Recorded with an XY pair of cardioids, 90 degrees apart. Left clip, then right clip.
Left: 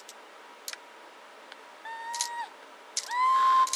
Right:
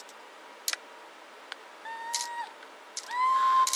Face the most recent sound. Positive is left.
turn(degrees=30)